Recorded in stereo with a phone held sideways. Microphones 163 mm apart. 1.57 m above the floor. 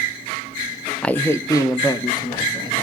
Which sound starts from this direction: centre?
A man speaking, at 1.0 s.